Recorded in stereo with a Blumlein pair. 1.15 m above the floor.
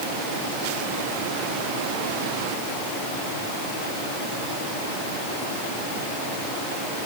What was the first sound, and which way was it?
Only background noise.